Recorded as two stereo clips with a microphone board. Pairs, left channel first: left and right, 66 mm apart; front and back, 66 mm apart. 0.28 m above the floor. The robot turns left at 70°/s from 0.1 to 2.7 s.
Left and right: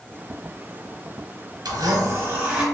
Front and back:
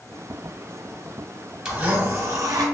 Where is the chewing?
No chewing in this recording.